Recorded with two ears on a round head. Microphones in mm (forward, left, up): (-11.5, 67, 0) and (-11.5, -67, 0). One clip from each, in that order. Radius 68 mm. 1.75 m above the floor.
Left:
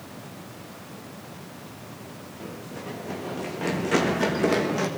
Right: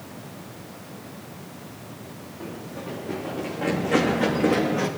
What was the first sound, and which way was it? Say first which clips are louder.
Running footsteps: right 2 dB; 80° left.